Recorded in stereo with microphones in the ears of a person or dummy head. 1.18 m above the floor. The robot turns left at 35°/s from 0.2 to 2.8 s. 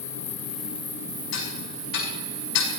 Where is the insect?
15° left, 1.4 m; by 2.8 s 80° right, 1.4 m.